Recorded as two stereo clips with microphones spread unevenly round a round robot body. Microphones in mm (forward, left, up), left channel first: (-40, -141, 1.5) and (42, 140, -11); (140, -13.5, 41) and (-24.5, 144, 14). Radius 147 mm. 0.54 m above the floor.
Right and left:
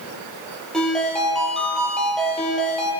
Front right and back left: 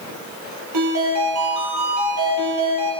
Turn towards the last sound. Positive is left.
turn(degrees=165)